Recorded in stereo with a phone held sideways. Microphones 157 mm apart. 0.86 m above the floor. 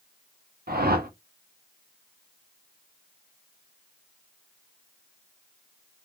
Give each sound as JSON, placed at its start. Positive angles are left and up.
{"t": 0.7, "sound": "a whoosh", "side_deg": -70, "distance_m": 0.7}